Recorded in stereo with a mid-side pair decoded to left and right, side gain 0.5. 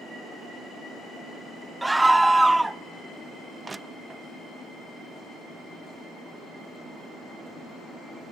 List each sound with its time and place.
1.8 s a scream: 10° right, 0.6 m
3.6 s crushing: 25° right, 0.5 m